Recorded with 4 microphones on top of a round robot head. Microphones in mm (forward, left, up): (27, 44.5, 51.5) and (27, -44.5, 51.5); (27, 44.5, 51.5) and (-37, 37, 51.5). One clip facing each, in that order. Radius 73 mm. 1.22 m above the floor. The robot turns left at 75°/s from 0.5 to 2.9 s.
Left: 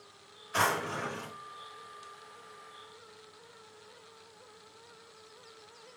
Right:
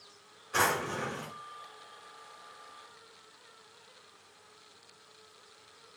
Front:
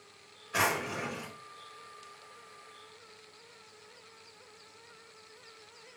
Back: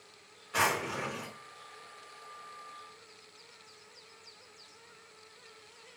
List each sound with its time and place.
0.5 s a drawer: 75° right, 1.5 m; by 1.3 s 135° right, 1.5 m